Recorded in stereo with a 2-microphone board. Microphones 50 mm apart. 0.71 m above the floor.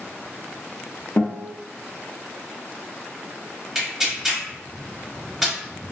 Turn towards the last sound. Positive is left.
turn(degrees=-10)  # may be behind; listen again after turning